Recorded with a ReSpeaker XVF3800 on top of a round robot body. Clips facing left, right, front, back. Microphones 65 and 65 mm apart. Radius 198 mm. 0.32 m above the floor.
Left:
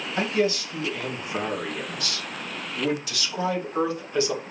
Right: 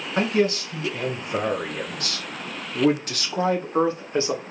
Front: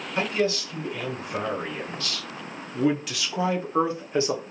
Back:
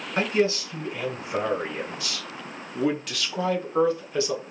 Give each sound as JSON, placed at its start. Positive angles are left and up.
{"t": 0.2, "sound": "a man speaking", "azimuth_deg": -115, "distance_m": 3.0}